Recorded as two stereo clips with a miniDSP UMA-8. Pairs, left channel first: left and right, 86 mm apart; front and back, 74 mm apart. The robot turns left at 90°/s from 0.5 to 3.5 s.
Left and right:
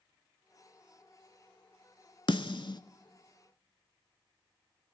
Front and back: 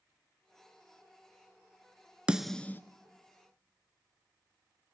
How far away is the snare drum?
About 0.8 m.